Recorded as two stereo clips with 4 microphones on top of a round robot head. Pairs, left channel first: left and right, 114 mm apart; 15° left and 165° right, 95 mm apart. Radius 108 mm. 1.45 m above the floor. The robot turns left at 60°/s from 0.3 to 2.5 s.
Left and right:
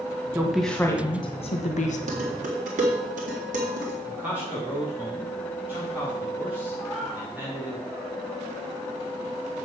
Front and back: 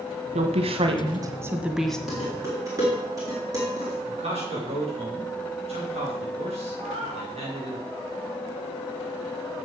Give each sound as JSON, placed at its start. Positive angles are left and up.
{"t": 0.3, "sound": "a woman speaking", "azimuth_deg": -165, "distance_m": 1.6}
{"t": 2.1, "sound": "dishes clattering", "azimuth_deg": -80, "distance_m": 3.0}
{"t": 4.0, "sound": "a man speaking", "azimuth_deg": -170, "distance_m": 4.0}
{"t": 6.8, "sound": "a cat meowing", "azimuth_deg": 180, "distance_m": 1.8}